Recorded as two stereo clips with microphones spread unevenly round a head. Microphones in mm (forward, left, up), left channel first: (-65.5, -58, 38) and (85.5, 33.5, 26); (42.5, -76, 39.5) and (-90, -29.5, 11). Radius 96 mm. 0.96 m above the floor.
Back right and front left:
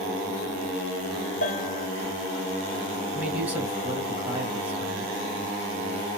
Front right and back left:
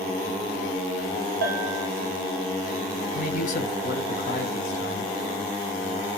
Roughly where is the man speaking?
Ahead right.